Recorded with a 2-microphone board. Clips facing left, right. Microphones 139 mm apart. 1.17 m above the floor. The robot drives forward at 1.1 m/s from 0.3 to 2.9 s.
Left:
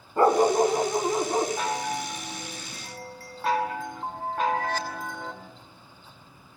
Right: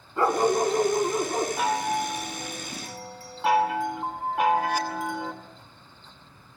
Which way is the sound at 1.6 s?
10° right (ahead or behind).